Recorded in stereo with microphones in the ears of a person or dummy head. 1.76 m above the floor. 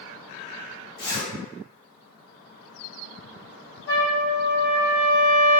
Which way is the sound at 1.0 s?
55° left (ahead or behind).